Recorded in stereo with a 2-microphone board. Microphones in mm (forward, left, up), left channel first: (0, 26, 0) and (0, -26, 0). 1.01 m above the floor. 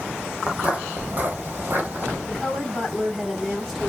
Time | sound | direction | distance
0.5 | footsteps | 20° right (ahead or behind) | 1.6 m
2.3 | a woman speaking | 10° left (ahead or behind) | 2.5 m